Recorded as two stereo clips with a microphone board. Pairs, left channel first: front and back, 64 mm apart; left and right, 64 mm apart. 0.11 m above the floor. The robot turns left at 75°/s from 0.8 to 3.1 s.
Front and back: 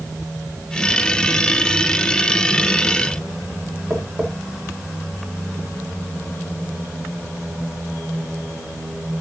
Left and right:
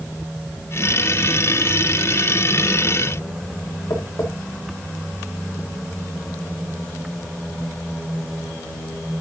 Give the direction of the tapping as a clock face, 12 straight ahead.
8 o'clock.